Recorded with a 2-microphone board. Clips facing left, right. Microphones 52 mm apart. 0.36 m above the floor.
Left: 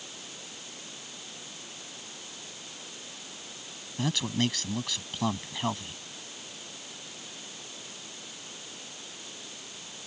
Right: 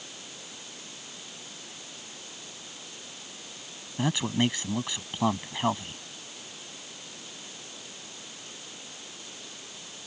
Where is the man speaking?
20° right (ahead or behind).